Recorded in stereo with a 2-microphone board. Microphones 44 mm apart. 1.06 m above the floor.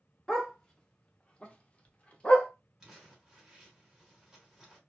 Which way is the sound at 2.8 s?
10° right (ahead or behind).